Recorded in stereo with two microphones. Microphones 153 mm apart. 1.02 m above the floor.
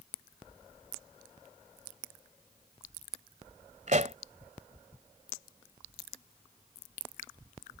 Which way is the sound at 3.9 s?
55° right (ahead or behind).